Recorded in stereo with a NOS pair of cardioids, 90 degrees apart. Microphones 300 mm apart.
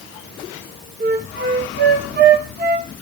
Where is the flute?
35° right, 1.6 m.